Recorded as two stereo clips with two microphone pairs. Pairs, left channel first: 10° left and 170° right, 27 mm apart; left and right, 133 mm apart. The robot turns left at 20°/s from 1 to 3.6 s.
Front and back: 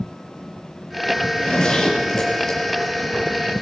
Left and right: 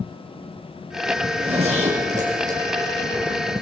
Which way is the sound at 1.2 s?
40° right.